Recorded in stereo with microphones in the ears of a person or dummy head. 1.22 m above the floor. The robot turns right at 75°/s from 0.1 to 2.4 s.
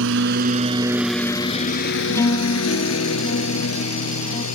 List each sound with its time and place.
0.0 s a lawn mower: 70° right (ahead or behind); by 4.5 s 85° left
2.1 s a guitar: 5° left (ahead or behind); by 4.5 s 30° left (ahead or behind)